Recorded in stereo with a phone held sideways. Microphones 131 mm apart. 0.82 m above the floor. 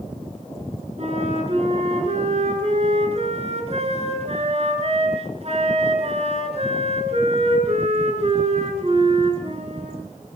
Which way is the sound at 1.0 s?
50° right (ahead or behind).